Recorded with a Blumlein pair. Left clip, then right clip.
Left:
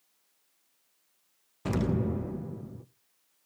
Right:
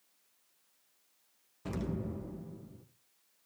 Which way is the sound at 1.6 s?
25° left.